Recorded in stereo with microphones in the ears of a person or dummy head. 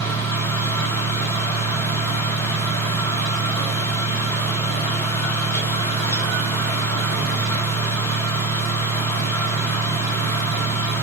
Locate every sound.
0.0 s a fan: 15° left (ahead or behind), 0.8 m